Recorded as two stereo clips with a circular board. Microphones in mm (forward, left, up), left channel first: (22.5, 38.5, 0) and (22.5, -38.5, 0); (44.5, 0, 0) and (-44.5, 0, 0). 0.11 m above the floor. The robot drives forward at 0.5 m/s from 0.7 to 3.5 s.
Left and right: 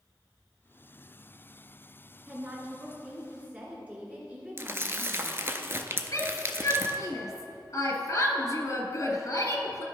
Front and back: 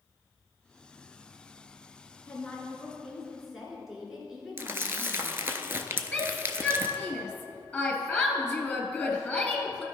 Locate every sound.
2.3 s a woman speaking: 55° right, 1.8 m; by 5.6 s 110° right, 1.7 m
4.6 s crumpling: 130° right, 0.6 m
6.1 s a shout: 85° left, 1.4 m